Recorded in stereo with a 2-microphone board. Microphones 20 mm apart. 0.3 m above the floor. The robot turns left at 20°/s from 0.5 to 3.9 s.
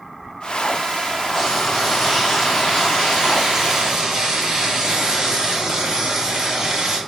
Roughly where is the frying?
Ahead.